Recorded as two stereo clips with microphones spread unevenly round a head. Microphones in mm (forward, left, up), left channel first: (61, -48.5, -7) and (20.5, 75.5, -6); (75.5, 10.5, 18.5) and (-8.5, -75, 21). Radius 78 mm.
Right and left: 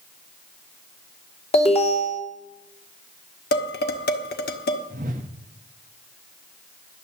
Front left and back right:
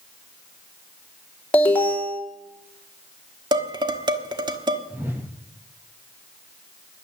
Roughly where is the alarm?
Ahead right.